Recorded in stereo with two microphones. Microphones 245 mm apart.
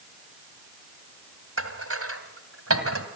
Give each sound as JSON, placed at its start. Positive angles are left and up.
{"t": 1.6, "sound": "dishes clattering", "side_deg": -70, "distance_m": 2.5}